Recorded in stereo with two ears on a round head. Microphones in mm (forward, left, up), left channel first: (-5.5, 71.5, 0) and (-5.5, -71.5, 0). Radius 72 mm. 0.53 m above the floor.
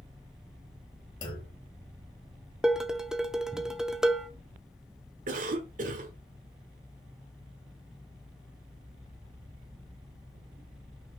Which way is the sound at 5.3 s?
55° right (ahead or behind).